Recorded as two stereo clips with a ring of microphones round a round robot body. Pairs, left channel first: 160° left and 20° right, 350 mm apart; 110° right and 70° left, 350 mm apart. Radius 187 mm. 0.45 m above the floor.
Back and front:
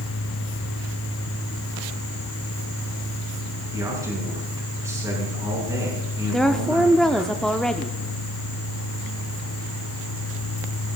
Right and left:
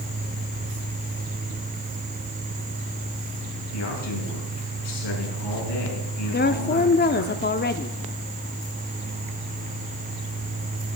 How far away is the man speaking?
About 5 m.